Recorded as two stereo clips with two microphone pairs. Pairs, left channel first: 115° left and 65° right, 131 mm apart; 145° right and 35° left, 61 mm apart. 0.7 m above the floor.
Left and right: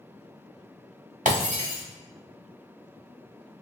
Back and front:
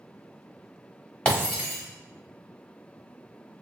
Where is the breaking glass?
70° right, 1.9 m.